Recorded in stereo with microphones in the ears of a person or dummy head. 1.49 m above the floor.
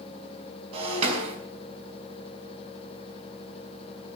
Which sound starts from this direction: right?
Breaking glass, at 0.7 s.